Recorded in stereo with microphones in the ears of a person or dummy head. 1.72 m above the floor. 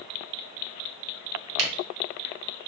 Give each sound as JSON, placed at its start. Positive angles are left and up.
{"t": 1.6, "sound": "a camera shutter", "side_deg": -65, "distance_m": 1.0}